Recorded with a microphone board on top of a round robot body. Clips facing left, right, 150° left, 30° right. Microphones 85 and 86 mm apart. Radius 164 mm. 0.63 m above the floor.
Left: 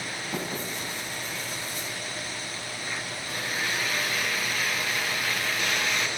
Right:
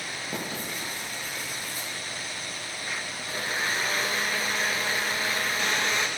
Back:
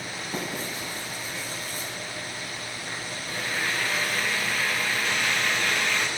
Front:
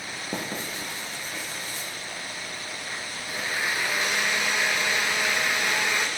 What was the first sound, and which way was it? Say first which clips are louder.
Writing: left 2 dB, even; 10° right.